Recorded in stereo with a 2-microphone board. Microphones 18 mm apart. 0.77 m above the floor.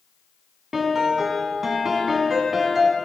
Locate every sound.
0.7 s a piano: 20° right (ahead or behind), 1.3 m